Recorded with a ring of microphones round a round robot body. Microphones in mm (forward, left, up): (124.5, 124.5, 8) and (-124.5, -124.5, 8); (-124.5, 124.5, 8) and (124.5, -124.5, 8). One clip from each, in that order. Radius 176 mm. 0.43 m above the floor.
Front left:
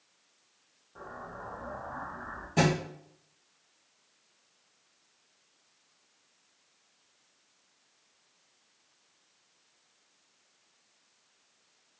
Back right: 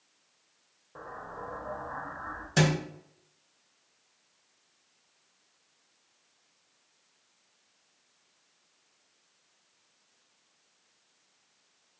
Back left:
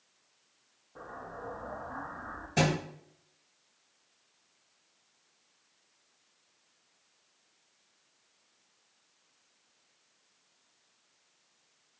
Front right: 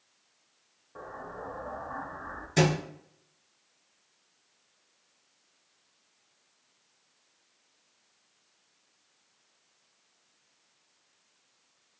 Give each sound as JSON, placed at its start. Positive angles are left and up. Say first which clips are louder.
{"t": 0.9, "sound": "an explosion", "louder": "back right 2 dB, front right 2 dB", "azimuth_deg": -105, "distance_m": 1.1}
{"t": 2.6, "sound": "a thud", "louder": "even, front right 3 dB", "azimuth_deg": -110, "distance_m": 1.9}